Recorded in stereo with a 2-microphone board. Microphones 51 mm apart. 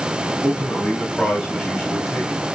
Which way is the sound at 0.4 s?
10° right (ahead or behind).